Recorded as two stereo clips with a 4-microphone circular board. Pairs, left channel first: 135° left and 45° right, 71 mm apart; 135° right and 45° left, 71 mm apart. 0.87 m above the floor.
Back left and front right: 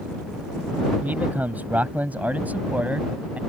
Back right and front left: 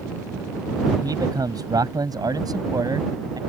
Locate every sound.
1.0 s a man speaking: 20° left; by 3.4 s 25° left